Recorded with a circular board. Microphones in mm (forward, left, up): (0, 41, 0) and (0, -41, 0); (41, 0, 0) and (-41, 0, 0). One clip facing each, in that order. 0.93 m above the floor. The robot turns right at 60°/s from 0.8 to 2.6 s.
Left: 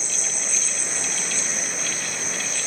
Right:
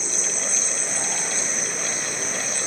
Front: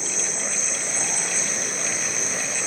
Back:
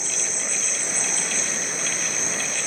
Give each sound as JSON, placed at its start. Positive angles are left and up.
{"t": 0.0, "sound": "an insect", "azimuth_deg": -170, "distance_m": 4.0}